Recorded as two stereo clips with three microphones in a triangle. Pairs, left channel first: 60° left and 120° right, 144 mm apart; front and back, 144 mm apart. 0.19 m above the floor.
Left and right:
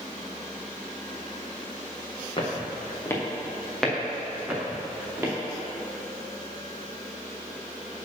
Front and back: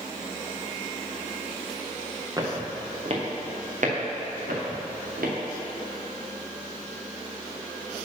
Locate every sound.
2.4 s footsteps: 115° left, 2.0 m; by 5.3 s 165° left, 3.5 m